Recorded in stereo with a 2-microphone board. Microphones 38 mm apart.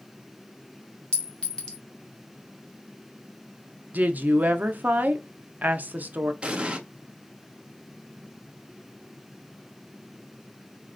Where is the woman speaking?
45° right (ahead or behind), 0.6 m.